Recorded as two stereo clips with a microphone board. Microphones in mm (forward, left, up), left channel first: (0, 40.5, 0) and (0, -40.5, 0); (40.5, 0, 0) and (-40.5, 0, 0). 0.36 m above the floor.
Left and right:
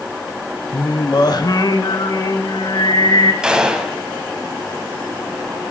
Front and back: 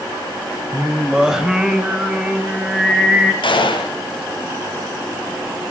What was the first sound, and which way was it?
Singing, 100° left.